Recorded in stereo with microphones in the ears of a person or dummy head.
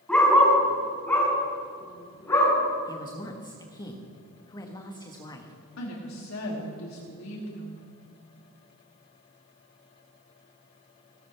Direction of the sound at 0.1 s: 5° left (ahead or behind).